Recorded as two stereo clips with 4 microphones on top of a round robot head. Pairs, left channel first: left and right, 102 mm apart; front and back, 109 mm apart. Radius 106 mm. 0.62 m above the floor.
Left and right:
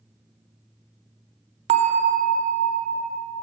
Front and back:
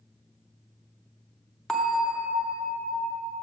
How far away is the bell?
About 0.6 m.